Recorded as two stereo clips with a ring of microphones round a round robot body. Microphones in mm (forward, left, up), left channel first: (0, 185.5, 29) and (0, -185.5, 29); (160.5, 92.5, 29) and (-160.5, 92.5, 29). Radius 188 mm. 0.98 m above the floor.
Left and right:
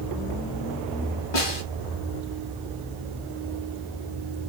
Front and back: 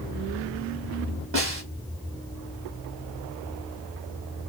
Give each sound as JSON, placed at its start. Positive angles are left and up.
{"t": 1.3, "sound": "a snare drum", "azimuth_deg": 135, "distance_m": 1.4}